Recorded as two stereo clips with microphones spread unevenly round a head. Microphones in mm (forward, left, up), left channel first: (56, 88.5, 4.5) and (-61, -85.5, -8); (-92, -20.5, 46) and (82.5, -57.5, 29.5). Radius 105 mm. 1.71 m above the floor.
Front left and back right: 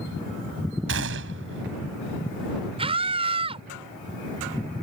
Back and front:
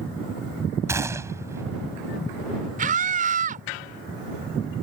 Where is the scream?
60° right.